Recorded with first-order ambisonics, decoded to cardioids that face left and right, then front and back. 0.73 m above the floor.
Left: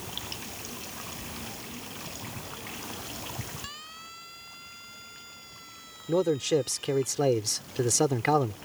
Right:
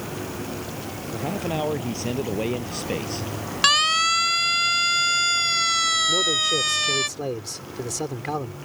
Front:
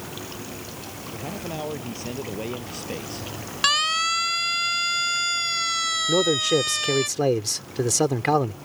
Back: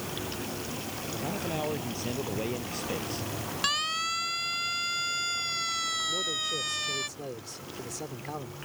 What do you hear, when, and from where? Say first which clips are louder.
1.1 s a man speaking: right 13 dB, front 1 dB; 85° right; by 3.3 s 80° right
3.6 s a siren: right 24 dB, front 8 dB; 65° right; by 7.1 s 70° right
6.1 s a man speaking: right 5 dB, front 10 dB; 20° left